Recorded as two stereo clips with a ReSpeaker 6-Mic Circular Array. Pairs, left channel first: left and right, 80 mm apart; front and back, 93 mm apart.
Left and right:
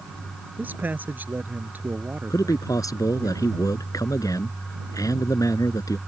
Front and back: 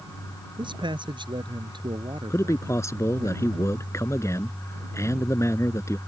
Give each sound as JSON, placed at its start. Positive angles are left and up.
{"t": 0.6, "sound": "a man speaking", "azimuth_deg": -155}
{"t": 2.3, "sound": "a man speaking", "azimuth_deg": 55}